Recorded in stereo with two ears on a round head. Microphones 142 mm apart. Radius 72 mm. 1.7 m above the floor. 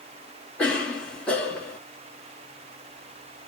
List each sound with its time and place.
0.6 s a cough: 5° left (ahead or behind), 0.8 m